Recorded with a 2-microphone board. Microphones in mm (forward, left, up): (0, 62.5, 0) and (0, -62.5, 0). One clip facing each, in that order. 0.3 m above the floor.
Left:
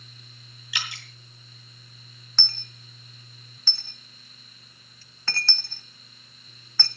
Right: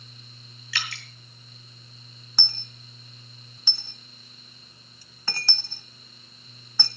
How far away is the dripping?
About 2.5 m.